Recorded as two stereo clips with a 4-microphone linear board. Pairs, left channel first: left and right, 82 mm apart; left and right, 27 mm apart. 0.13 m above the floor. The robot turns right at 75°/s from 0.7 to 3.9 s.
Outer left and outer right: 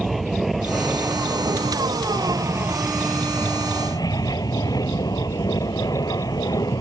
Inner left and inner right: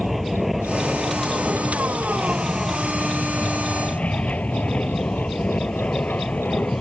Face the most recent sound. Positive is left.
turn(degrees=65)